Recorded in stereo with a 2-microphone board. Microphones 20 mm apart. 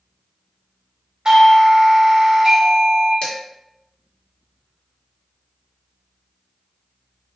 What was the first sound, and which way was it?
A doorbell, 35° right (ahead or behind).